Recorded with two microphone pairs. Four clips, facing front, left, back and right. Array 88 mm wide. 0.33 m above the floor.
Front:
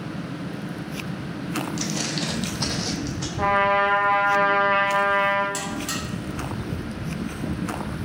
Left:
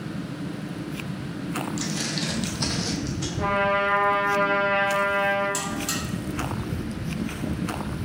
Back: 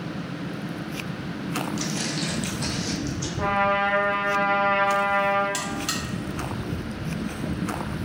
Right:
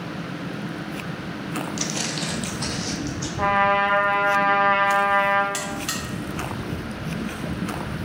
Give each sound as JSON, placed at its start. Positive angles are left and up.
{"t": 1.8, "sound": "footsteps", "azimuth_deg": -70, "distance_m": 0.5}
{"t": 3.4, "sound": "a trumpet", "azimuth_deg": -55, "distance_m": 0.7}
{"t": 5.5, "sound": "a buzzer", "azimuth_deg": -115, "distance_m": 1.2}